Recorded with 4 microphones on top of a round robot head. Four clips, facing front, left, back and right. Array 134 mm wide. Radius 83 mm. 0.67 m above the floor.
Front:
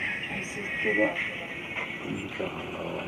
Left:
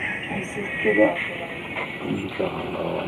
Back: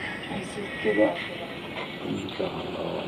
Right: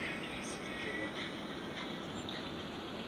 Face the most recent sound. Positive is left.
turn(degrees=110)